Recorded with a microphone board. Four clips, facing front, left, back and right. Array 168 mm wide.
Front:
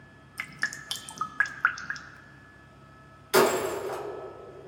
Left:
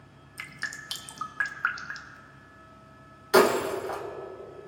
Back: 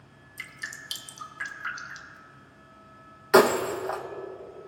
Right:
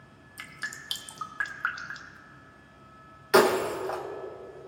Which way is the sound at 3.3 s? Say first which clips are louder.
Even, back 3 dB; 170° right.